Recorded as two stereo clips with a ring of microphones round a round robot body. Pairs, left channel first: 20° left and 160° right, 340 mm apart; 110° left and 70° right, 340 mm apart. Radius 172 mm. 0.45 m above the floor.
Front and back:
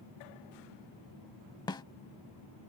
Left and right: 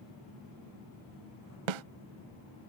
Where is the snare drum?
55° right.